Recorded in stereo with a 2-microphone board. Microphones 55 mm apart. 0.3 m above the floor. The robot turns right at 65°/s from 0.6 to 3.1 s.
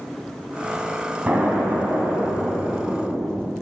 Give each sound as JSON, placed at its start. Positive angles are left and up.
{"t": 1.3, "sound": "an explosion", "azimuth_deg": -145, "distance_m": 2.0}